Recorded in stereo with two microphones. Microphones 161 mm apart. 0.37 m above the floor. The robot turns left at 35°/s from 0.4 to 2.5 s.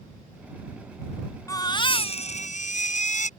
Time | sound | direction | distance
1.5 | a baby crying | 155° left | ?